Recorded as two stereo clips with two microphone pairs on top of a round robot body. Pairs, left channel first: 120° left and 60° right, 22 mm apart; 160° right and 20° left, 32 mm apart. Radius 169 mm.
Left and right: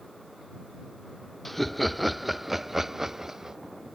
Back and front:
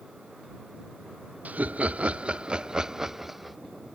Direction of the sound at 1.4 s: 25° left.